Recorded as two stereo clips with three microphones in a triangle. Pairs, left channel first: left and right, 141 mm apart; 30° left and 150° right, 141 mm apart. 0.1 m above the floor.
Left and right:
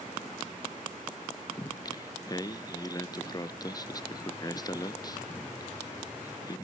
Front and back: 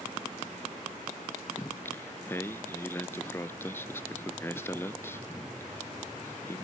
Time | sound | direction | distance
1.6 | singing | 85° left | 0.5 m